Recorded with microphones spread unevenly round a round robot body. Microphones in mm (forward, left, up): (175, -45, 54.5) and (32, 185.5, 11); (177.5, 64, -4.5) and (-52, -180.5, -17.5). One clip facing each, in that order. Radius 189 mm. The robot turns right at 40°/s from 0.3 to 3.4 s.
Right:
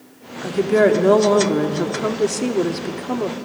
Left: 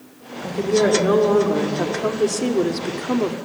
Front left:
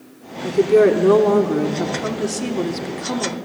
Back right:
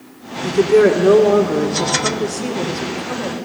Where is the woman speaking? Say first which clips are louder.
Right 2 dB, back right 1 dB; 60° right, 1.6 m; by 3.4 s 60° left, 1.6 m.